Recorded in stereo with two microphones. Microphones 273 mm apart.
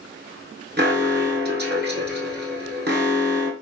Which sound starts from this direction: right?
An alarm, at 0.8 s.